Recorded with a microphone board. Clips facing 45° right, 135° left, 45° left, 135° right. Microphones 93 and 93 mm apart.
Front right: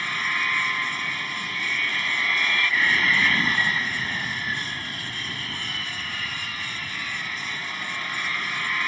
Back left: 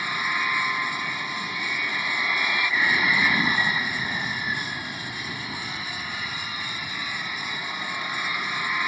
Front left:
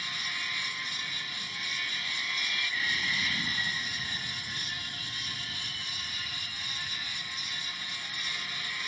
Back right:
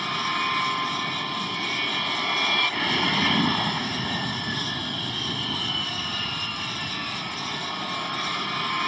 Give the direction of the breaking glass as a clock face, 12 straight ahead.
I don't hear breaking glass.